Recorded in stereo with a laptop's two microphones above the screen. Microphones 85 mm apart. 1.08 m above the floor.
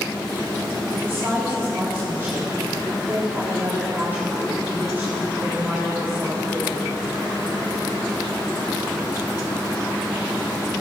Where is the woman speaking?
25° right (ahead or behind), 3 m.